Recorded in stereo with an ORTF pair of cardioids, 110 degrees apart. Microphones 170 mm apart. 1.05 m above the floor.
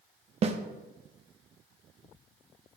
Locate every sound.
0.4 s a snare drum: 40° right, 0.7 m